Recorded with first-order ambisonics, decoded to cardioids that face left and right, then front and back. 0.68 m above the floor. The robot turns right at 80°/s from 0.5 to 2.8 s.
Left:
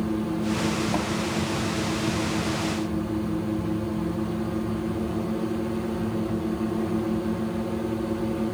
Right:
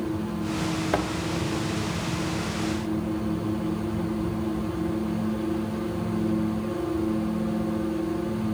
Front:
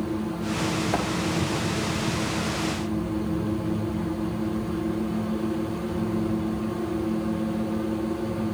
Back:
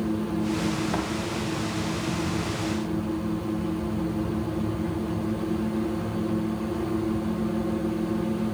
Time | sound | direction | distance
0.9 | a thud | 85° right | 2.5 m